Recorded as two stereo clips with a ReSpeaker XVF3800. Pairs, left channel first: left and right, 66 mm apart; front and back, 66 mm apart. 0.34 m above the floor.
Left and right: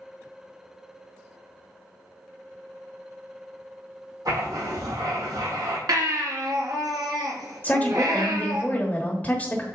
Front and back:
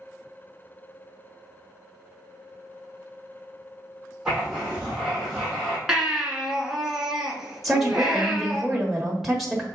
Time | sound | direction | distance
4.2 | writing | 100° right | 4 m
5.9 | a baby crying | 100° right | 1.8 m
7.6 | a woman speaking | 95° left | 1.1 m